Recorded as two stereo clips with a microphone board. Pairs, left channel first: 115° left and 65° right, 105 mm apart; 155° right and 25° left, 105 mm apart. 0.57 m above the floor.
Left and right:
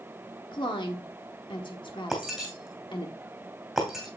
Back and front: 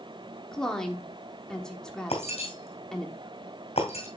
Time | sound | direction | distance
0.5 | a woman speaking | 120° left | 1.2 m
2.1 | breaking glass | 155° right | 2.5 m